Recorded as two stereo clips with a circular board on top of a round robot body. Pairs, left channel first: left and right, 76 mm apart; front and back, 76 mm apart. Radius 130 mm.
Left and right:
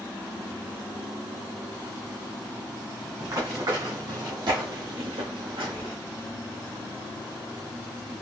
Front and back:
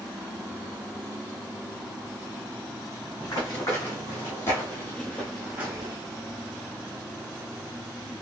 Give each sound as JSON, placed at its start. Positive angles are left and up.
{"t": 3.2, "sound": "running footsteps", "azimuth_deg": -50, "distance_m": 1.8}